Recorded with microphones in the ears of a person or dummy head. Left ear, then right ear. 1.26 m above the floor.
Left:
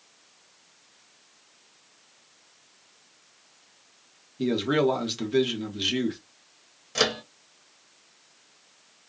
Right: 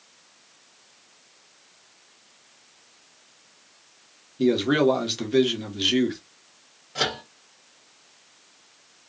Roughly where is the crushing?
I don't hear crushing.